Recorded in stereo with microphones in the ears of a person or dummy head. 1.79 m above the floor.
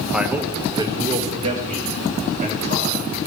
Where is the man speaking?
5° right (ahead or behind), 1.0 m; by 3.2 s 55° right (ahead or behind), 3 m.